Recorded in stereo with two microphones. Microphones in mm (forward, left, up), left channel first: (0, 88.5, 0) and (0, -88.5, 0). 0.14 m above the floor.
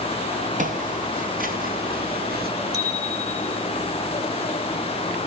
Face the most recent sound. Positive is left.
turn(degrees=-20)  # may be behind; listen again after turning